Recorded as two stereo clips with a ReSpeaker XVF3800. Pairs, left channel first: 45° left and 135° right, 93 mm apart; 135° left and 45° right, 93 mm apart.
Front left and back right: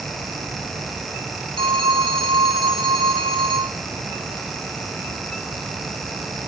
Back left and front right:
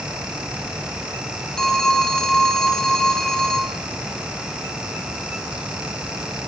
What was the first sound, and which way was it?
A phone ringing, 140° right.